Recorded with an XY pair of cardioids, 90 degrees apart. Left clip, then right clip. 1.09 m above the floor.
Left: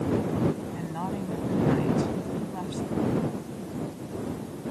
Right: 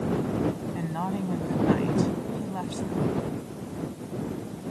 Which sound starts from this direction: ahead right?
A woman speaking, at 0.8 s.